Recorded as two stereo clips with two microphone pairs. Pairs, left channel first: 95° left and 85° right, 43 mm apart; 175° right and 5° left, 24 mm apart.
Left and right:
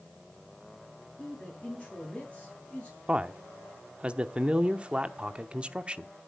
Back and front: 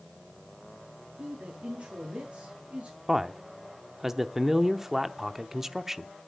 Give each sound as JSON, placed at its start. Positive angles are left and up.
{"t": 1.2, "sound": "a man speaking", "azimuth_deg": 25, "distance_m": 8.0}
{"t": 3.1, "sound": "a man speaking", "azimuth_deg": -55, "distance_m": 0.8}